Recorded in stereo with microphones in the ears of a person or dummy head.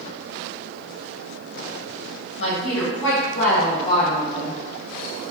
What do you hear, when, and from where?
2.4 s a woman speaking: 75° left (ahead or behind), 1.1 m; by 4.6 s 5° right (ahead or behind), 0.6 m